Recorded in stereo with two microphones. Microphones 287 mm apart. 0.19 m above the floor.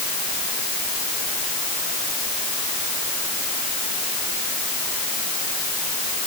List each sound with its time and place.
Only background noise.